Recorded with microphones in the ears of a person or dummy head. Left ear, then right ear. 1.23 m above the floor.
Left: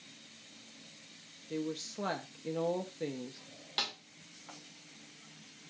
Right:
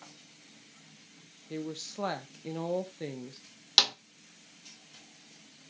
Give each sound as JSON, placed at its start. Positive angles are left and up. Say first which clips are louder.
{"t": 1.5, "sound": "a woman speaking", "louder": "even", "side_deg": -15, "distance_m": 0.6}
{"t": 3.8, "sound": "a snare drum", "louder": "right 12 dB", "side_deg": -50, "distance_m": 0.6}